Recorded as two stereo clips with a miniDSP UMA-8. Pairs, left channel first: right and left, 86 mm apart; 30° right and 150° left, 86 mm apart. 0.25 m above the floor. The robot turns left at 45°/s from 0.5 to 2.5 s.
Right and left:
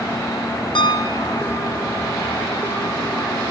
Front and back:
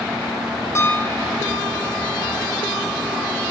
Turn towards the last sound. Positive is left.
turn(degrees=-165)